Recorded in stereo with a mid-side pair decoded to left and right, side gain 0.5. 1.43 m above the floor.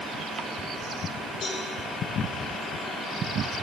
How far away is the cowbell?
About 5 m.